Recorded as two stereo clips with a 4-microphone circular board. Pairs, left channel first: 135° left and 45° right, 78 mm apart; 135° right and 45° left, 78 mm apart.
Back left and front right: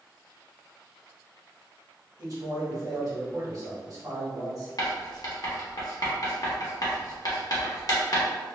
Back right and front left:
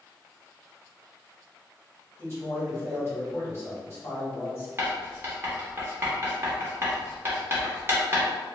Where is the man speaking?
80° right, 1.4 m.